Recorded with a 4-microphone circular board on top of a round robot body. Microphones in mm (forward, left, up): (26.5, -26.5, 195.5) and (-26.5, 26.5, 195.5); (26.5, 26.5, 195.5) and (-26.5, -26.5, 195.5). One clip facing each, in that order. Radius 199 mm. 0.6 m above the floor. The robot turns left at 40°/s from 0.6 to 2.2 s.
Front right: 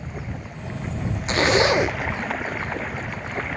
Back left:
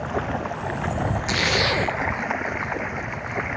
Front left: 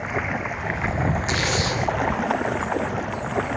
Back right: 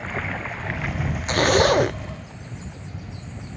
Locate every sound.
0.0 s running water: 120° left; by 3.6 s 60° left
1.3 s a zipper: 100° right; by 2.0 s 125° right